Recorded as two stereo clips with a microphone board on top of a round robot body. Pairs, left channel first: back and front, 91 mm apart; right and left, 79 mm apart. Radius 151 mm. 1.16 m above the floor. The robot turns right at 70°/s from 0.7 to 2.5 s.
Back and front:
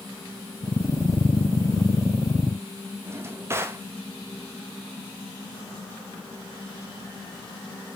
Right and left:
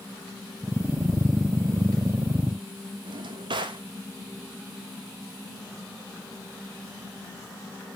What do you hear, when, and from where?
3.0 s a drawer: 65° left, 0.9 m